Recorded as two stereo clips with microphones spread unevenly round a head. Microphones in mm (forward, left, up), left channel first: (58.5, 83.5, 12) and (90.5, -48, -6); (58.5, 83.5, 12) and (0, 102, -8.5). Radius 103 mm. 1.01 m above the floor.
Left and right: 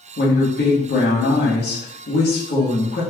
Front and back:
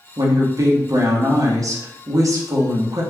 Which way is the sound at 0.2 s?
135° left.